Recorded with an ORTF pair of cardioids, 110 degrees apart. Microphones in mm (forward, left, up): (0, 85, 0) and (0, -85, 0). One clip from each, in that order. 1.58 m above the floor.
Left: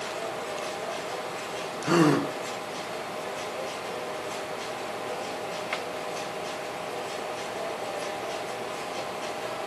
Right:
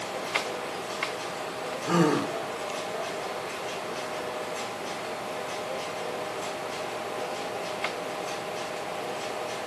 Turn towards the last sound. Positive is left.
turn(degrees=40)